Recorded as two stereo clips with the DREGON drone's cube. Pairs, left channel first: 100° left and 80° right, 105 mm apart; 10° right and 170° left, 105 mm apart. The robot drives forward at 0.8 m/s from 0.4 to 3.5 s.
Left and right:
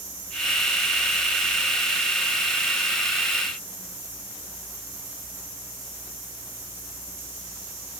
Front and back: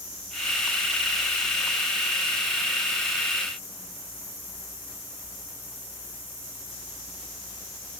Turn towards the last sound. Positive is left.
No sound to turn to.